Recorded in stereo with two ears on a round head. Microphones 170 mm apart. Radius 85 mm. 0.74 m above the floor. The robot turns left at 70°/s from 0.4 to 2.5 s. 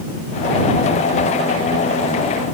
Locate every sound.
Only background noise.